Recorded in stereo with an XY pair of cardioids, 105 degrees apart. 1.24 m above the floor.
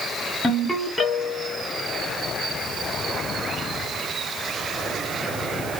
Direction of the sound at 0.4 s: 5° left.